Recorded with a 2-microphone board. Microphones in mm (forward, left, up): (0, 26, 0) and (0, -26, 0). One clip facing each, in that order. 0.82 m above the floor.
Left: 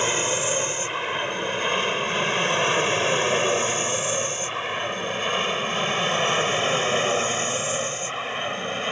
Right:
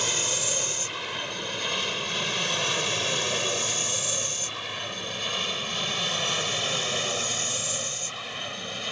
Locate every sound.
0.0 s an aircraft: 30° left (ahead or behind); by 8.9 s 35° left (ahead or behind)